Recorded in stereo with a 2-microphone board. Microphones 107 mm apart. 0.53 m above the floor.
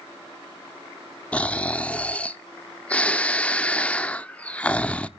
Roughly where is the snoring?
Centre.